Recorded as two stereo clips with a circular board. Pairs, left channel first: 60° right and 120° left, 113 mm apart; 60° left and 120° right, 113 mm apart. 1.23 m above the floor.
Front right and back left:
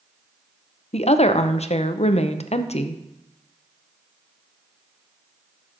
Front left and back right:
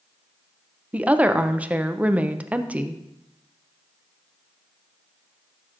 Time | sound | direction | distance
0.9 | a woman speaking | 45° right | 0.5 m